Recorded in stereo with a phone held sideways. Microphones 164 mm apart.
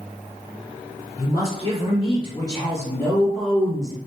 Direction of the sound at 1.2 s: 45° left (ahead or behind).